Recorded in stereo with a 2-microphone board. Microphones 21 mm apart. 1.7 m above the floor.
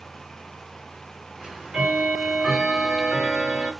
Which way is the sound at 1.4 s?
40° right (ahead or behind).